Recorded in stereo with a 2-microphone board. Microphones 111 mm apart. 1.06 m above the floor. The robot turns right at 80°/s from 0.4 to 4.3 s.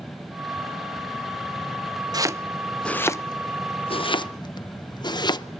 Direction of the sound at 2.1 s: 35° right (ahead or behind).